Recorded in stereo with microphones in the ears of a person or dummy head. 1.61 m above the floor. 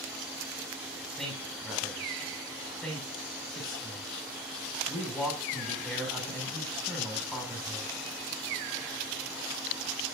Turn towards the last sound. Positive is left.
turn(degrees=5)  # may be behind; listen again after turning